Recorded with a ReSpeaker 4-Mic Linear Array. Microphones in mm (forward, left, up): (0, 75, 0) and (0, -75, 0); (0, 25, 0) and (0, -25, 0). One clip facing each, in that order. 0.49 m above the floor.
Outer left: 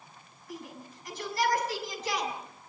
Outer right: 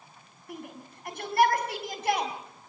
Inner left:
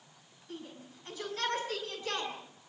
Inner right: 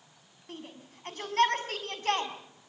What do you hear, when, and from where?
0.5 s a shout: 60° right (ahead or behind), 5 m